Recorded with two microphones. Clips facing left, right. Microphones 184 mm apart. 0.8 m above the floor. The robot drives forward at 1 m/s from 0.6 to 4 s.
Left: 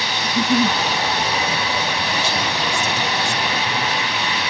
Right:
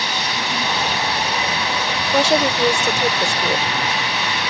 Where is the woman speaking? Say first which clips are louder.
Right 7 dB; 75° right (ahead or behind); by 3.7 s 55° right (ahead or behind).